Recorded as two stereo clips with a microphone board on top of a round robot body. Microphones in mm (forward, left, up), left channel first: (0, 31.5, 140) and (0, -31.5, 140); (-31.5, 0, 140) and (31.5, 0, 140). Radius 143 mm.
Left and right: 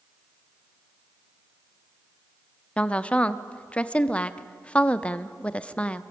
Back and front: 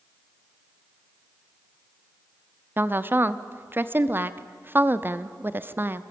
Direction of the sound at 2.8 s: 30° left.